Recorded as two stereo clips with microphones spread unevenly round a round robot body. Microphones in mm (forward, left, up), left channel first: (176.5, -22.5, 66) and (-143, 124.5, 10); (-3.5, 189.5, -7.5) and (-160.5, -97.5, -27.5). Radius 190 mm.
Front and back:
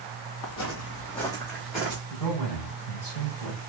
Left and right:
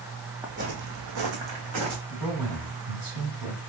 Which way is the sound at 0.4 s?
35° right.